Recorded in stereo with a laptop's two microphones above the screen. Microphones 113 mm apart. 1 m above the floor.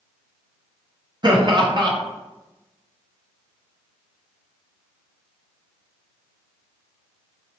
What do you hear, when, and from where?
1.2 s laughter: 40° right (ahead or behind), 0.7 m